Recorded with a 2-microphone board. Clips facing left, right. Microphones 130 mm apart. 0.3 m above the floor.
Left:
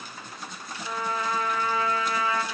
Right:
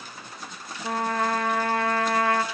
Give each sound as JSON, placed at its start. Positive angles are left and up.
{"t": 0.8, "sound": "a trumpet", "side_deg": -70, "distance_m": 0.5}